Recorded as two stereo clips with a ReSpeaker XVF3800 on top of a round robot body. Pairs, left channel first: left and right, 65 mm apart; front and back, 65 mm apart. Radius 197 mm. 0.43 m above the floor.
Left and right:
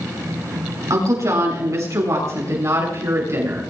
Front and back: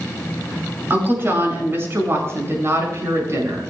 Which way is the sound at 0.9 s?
125° right.